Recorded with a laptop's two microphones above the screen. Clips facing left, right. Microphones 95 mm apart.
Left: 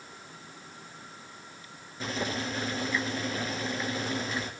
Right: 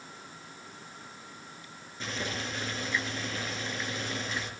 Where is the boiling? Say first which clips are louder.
Left 4 dB; 5° left (ahead or behind), 3 m.